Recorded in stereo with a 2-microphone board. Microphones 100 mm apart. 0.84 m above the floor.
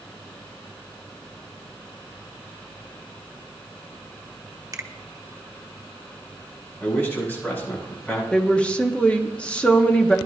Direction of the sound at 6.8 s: 15° left (ahead or behind).